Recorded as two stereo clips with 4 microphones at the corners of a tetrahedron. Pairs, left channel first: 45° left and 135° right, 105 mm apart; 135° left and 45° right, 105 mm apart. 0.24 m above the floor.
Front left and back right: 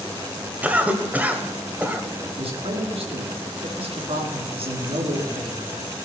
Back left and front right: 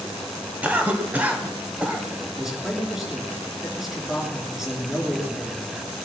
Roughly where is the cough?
Right.